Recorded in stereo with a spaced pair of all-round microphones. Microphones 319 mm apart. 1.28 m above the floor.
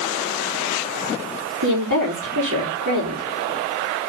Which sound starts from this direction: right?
A woman speaking, at 1.6 s.